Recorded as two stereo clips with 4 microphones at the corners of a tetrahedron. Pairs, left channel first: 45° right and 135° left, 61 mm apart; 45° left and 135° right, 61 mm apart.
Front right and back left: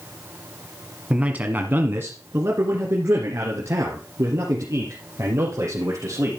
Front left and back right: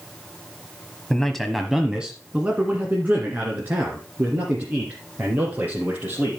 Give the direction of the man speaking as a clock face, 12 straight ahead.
9 o'clock.